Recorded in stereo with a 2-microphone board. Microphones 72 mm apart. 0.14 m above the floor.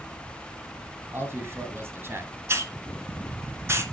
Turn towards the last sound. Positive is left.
turn(degrees=-35)  # may be behind; listen again after turning